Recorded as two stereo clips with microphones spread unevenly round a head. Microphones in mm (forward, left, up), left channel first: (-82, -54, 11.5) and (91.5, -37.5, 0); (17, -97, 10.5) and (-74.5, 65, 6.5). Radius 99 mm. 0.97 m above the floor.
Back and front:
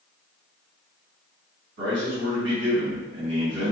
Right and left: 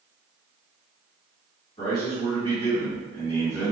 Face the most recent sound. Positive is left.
turn(degrees=10)